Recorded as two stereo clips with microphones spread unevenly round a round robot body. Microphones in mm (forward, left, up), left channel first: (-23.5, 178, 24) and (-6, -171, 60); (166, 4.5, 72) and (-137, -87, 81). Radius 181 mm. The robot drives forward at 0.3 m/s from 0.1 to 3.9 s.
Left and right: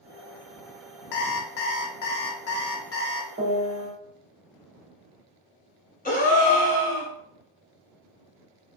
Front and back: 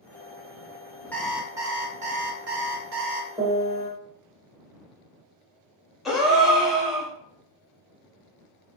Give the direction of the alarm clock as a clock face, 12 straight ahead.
9 o'clock.